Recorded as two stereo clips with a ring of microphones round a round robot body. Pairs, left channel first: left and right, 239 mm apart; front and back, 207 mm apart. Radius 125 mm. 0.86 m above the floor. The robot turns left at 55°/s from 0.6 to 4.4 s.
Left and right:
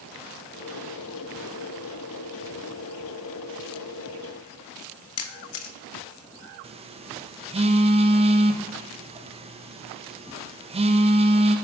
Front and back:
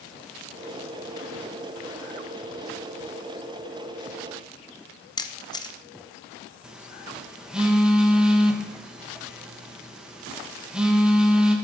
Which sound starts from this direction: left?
A camera shutter, at 5.2 s.